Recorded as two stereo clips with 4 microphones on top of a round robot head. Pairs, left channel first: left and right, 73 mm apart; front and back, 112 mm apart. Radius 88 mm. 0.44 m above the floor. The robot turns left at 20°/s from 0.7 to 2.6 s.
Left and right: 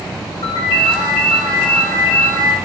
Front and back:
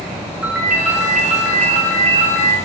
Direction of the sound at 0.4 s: 100° left.